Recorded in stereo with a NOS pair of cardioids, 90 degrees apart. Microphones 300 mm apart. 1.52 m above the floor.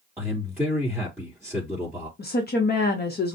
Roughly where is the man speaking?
Ahead.